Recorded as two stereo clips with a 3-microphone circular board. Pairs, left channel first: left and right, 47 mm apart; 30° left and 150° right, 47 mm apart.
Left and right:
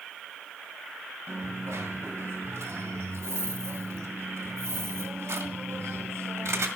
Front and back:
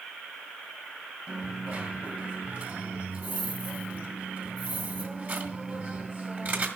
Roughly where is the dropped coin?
Right.